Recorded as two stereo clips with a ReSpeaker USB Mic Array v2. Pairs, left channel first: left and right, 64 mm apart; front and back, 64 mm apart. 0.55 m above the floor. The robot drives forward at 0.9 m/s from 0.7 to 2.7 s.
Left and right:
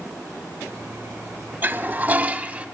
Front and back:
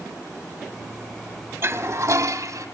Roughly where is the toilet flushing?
Behind right.